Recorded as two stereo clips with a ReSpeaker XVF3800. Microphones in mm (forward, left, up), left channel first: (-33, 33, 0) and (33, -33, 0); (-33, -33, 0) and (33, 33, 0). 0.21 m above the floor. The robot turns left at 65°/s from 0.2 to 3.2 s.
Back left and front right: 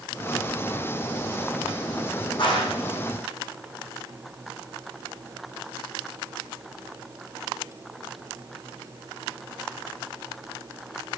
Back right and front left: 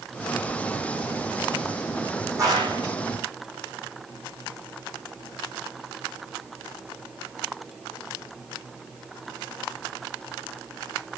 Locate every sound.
2.4 s a clap: 100° left, 8 m; by 2.8 s 70° left, 8 m